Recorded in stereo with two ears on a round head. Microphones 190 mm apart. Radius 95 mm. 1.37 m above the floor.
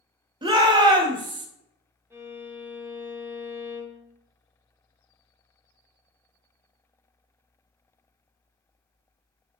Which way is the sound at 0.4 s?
20° right (ahead or behind).